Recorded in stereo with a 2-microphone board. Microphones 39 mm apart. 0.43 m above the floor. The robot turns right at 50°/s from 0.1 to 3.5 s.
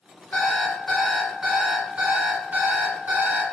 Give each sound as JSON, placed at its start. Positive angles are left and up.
{"t": 0.3, "sound": "an alarm clock", "azimuth_deg": 130, "distance_m": 1.6}